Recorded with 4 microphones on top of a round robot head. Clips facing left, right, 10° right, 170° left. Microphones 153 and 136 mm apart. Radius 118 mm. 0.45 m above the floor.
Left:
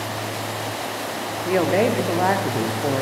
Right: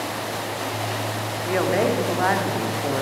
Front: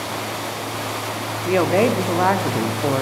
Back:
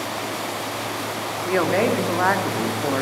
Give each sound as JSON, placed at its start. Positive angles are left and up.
{"t": 1.4, "sound": "a woman speaking", "azimuth_deg": 45, "distance_m": 0.8}